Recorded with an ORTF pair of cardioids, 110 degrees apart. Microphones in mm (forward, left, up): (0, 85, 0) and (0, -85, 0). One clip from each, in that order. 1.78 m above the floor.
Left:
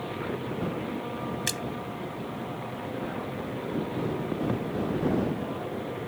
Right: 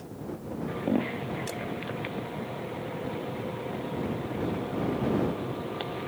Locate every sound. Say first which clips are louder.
1.5 s a splash: left 5 dB; 65° left